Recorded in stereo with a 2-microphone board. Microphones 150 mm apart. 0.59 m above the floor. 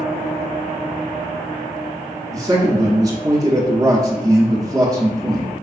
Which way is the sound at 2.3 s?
25° right (ahead or behind).